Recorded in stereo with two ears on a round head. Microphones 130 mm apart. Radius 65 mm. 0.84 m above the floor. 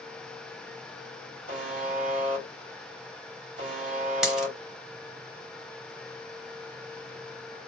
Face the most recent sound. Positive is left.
turn(degrees=-5)  # may be behind; listen again after turning